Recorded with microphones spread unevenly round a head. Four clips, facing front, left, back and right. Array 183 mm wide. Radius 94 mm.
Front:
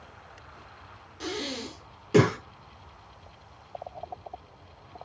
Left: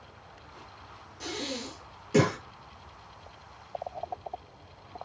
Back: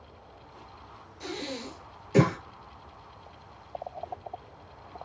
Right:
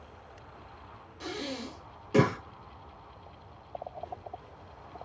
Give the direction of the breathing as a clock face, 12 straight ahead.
12 o'clock.